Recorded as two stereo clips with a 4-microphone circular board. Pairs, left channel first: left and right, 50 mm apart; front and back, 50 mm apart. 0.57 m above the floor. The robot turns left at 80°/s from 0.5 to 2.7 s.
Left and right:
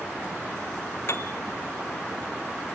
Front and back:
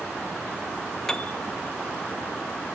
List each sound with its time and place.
1.1 s a piano: 80° left, 0.6 m; by 1.4 s 55° left, 0.6 m